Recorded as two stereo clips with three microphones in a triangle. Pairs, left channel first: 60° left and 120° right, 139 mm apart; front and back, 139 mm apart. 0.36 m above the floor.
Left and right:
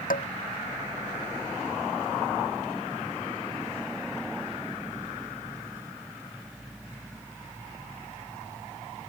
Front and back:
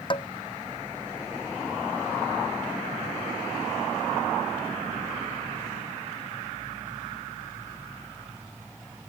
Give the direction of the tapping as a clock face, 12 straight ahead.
10 o'clock.